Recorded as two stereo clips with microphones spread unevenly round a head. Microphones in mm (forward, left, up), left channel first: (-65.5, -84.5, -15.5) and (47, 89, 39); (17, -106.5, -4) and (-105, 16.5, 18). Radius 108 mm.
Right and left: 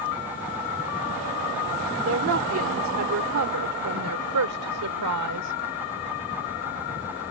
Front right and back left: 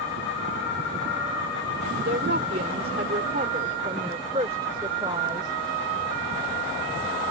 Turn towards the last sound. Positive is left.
turn(degrees=60)